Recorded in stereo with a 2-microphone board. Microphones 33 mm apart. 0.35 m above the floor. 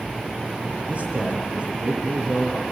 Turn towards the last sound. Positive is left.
turn(degrees=-35)  # may be behind; listen again after turning